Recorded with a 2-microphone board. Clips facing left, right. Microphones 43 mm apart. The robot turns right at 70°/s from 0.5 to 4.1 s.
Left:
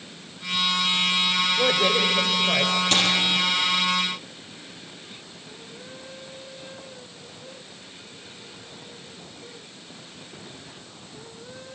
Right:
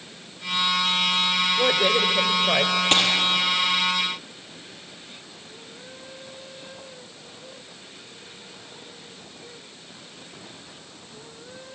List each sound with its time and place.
1.6 s a woman speaking: 5° right (ahead or behind), 1.1 m; by 2.8 s 25° right (ahead or behind), 1.1 m
2.9 s a dropped coin: 30° right (ahead or behind), 4.5 m; by 3.1 s 20° right (ahead or behind), 4.5 m